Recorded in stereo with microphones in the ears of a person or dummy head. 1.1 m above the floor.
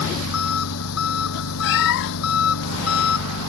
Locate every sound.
0.0 s an engine running: 85° left
1.6 s a cat meowing: 65° left (ahead or behind)